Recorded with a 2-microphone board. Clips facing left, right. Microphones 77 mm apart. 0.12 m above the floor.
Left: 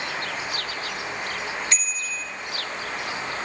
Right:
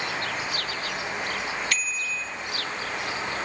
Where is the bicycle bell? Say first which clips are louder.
Right 1 dB; 20° left (ahead or behind), 2.5 m.